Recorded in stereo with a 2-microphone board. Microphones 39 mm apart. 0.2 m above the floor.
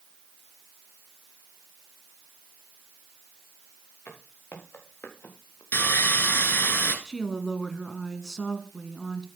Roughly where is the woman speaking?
Centre.